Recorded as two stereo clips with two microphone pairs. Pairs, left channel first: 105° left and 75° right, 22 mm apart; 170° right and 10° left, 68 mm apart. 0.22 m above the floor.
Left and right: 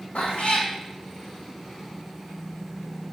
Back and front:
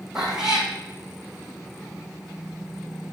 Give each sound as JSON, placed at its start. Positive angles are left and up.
{"t": 0.1, "sound": "a cat meowing", "azimuth_deg": 95, "distance_m": 2.5}